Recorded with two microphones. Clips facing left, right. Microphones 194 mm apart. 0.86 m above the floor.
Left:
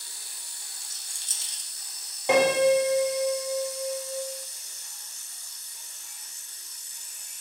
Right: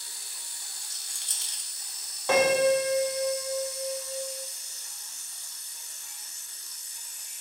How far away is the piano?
About 0.6 m.